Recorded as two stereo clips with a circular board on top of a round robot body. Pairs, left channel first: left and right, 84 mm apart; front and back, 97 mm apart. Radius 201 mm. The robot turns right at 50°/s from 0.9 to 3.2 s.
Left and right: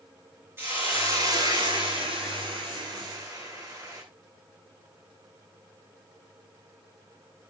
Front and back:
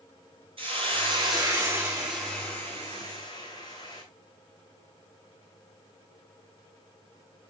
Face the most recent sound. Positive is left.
turn(degrees=-35)